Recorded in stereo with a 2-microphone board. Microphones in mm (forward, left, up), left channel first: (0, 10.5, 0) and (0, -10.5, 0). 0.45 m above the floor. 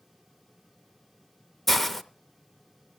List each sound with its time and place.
1.7 s a hiss: 10° left (ahead or behind), 0.7 m